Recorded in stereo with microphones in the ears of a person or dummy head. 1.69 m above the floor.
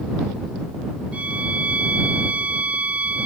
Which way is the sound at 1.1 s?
5° right (ahead or behind).